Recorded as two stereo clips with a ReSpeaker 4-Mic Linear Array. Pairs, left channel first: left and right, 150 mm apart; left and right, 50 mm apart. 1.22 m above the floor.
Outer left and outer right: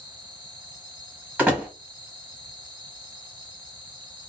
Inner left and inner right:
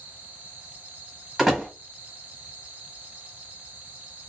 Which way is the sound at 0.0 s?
30° right (ahead or behind).